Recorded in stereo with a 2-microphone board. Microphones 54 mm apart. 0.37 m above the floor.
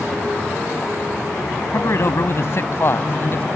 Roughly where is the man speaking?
Left.